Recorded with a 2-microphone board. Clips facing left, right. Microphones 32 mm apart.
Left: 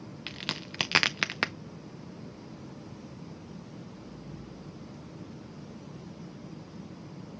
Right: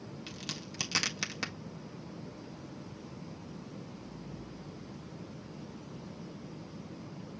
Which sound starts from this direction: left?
A crack, at 0.3 s.